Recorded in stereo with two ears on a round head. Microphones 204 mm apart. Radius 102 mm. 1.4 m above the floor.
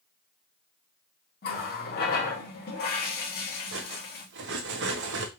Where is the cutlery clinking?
60° right (ahead or behind), 1.0 m.